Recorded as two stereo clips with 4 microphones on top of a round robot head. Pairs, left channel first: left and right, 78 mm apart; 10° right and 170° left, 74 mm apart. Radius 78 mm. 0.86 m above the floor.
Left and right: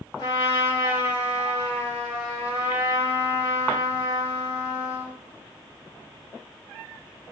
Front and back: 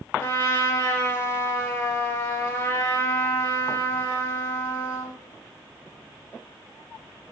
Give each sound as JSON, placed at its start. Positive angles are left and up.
{"t": 0.2, "sound": "a trumpet", "azimuth_deg": 50, "distance_m": 1.8}